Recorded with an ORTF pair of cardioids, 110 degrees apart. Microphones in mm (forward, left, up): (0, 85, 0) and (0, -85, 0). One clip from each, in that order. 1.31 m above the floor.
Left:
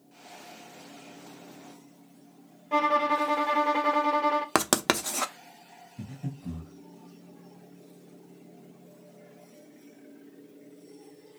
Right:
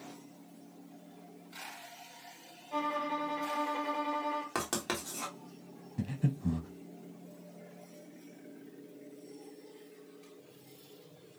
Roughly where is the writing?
Left.